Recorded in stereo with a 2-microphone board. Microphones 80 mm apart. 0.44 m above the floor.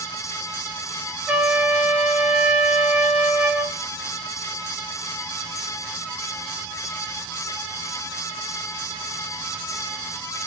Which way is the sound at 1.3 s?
15° right (ahead or behind).